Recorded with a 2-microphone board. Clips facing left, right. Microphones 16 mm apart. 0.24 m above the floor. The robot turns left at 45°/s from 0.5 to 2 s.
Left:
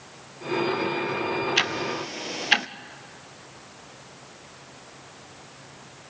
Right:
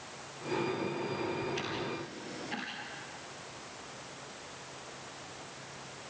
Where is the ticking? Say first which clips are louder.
Left 11 dB; 55° left (ahead or behind), 0.8 m; by 2.7 s 75° left (ahead or behind), 0.8 m.